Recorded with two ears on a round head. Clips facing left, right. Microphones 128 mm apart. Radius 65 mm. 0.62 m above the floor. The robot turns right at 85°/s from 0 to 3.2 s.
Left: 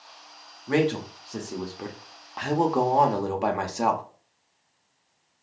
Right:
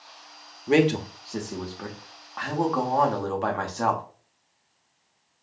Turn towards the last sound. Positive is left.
turn(degrees=15)  # may be behind; listen again after turning